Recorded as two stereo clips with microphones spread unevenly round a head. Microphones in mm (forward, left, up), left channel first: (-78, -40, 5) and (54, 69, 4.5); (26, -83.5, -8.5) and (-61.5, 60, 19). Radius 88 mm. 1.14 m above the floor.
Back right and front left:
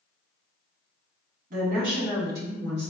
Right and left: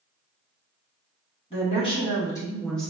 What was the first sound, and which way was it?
A woman speaking, 5° right.